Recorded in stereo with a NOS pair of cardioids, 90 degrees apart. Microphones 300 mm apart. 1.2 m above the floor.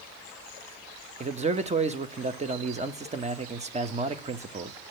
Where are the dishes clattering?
No dishes clattering in this recording.